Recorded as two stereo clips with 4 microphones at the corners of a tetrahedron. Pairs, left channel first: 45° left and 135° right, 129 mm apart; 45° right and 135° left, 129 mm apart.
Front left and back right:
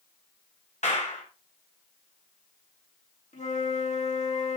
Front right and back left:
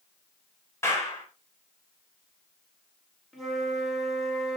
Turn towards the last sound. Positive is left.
turn(degrees=45)